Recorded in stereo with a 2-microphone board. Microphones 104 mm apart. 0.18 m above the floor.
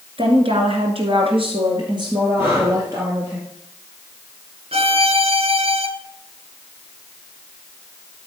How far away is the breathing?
About 4 m.